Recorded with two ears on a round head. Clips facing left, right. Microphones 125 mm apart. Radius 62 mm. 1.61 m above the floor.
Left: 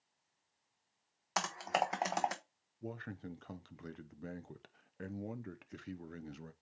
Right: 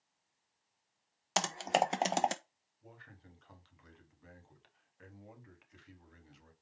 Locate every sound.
1.4 s typing on a keyboard: 30° right (ahead or behind), 0.9 m
2.8 s a man speaking: 60° left (ahead or behind), 0.9 m